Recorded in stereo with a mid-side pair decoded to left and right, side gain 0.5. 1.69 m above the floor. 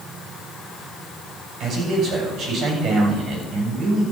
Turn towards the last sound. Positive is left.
turn(degrees=-60)